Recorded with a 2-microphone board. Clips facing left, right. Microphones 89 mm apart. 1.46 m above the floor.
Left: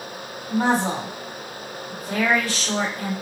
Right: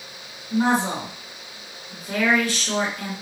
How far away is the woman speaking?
About 2 m.